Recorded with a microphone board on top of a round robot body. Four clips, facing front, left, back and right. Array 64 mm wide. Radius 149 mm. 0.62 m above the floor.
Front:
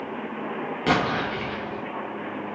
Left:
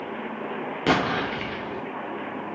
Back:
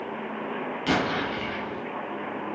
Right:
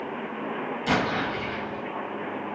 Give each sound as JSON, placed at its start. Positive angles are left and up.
{"t": 0.9, "sound": "an explosion", "azimuth_deg": 55, "distance_m": 0.6}